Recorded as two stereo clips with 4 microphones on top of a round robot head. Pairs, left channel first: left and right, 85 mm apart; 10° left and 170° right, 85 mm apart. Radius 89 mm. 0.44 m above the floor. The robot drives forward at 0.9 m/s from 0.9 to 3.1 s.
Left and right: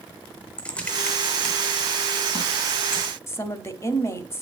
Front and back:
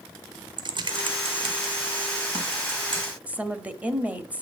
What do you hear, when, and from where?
0.6 s typing on a keyboard: 165° left, 0.9 m; by 3.1 s 175° left, 3 m
3.3 s a woman speaking: 125° left, 1.0 m